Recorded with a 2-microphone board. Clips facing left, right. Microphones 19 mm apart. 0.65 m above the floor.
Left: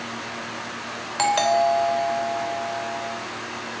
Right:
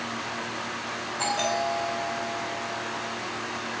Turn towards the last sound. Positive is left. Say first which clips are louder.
# left 8 dB
turn(degrees=65)  # may be behind; listen again after turning